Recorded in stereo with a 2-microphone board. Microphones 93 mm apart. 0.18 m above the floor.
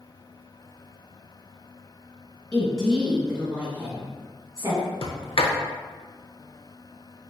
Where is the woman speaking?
10° left (ahead or behind), 1.8 m; by 4.8 s 40° right (ahead or behind), 1.7 m.